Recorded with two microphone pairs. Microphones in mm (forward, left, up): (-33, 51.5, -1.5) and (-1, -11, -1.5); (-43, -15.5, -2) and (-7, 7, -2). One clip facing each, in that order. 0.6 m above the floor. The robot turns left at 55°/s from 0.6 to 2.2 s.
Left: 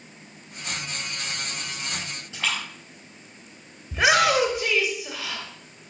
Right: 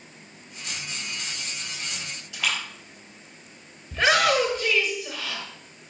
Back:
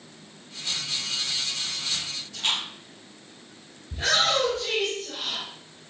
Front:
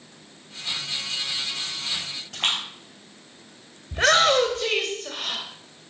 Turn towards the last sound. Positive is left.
turn(degrees=45)